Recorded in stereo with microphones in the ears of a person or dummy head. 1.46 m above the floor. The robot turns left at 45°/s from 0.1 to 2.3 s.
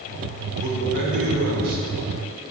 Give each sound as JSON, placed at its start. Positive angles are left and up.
{"t": 0.6, "sound": "a man speaking", "azimuth_deg": -40, "distance_m": 4.0}